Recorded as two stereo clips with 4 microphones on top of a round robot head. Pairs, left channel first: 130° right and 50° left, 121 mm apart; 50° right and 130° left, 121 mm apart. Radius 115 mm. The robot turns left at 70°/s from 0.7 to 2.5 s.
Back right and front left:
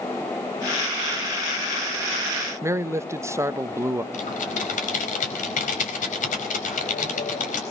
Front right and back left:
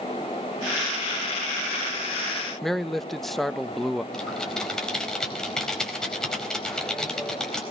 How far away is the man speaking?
About 1.1 m.